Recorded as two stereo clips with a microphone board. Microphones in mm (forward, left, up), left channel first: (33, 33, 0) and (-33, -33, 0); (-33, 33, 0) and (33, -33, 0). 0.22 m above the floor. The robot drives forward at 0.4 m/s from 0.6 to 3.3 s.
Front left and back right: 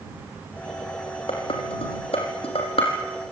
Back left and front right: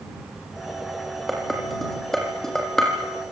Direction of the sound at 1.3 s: 45° left.